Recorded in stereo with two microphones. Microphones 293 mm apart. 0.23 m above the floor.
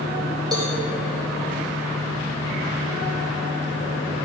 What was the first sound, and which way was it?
A cowbell, 15° right (ahead or behind).